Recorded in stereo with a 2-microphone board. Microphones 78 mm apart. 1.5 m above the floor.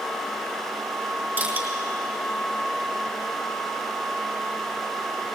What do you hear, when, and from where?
1.4 s crushing: 30° right (ahead or behind), 4.5 m